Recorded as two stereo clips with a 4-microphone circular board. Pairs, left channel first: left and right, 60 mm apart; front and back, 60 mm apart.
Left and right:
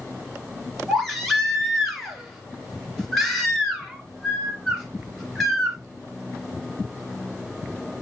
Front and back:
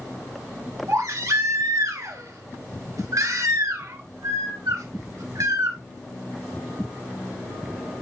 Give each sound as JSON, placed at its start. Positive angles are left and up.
{"t": 0.9, "sound": "a baby crying", "azimuth_deg": 175, "distance_m": 2.5}